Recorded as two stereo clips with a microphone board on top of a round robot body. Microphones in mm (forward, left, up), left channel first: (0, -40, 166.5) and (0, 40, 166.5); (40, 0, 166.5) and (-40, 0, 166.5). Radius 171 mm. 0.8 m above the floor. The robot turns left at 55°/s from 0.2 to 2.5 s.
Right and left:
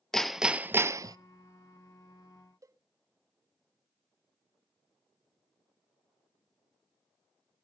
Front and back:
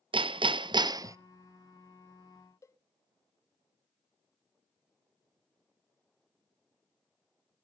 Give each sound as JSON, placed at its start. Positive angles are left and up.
{"t": 0.1, "sound": "hammering", "azimuth_deg": -175, "distance_m": 0.7}
{"t": 2.6, "sound": "a cowbell", "azimuth_deg": 50, "distance_m": 0.9}